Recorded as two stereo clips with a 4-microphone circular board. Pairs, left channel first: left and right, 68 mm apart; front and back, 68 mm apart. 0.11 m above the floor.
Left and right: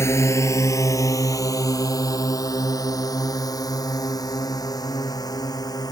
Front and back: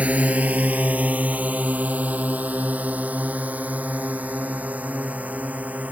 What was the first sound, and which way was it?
A drone, 120° left.